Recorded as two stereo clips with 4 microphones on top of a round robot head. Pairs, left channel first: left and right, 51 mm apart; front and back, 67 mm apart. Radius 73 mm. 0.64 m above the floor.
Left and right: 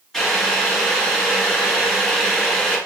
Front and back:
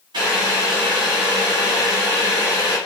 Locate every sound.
0.1 s boiling: 170° left, 2 m